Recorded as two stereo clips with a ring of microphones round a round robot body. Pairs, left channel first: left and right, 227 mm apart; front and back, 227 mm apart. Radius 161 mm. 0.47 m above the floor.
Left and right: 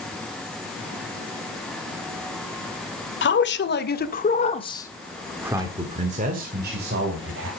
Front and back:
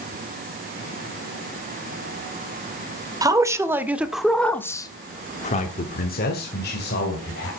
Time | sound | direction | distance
3.2 | a man speaking | 110° left | 2 m